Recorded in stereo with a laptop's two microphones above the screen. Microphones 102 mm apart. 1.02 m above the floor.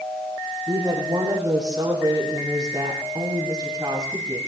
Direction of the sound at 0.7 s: 45° right (ahead or behind).